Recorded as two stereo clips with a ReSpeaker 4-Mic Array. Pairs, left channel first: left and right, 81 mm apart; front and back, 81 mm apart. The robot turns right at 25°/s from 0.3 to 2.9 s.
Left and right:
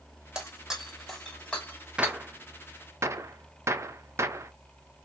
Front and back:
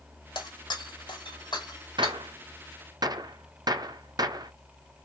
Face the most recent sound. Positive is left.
turn(degrees=-145)